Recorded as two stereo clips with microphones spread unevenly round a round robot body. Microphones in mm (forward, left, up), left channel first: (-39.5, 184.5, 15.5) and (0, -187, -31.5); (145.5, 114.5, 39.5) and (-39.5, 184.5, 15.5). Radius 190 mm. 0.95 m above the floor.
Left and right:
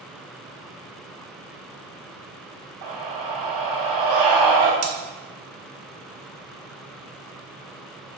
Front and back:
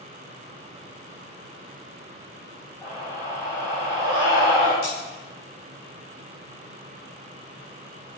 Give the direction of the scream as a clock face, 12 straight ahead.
3 o'clock.